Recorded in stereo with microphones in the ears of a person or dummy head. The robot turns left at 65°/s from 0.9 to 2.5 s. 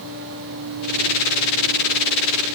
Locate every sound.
Only background noise.